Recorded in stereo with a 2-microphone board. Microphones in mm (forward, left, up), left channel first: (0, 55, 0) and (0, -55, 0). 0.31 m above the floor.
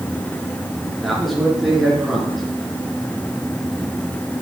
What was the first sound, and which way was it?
A man speaking, centre (ahead or behind).